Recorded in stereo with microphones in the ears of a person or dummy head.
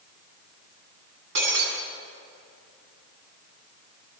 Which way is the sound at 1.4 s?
65° right (ahead or behind).